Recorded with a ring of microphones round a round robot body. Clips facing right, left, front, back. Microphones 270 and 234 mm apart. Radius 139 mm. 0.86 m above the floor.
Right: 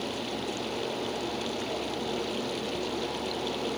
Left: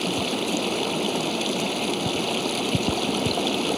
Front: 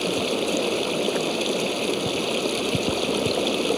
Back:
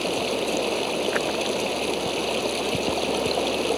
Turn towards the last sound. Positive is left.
turn(degrees=75)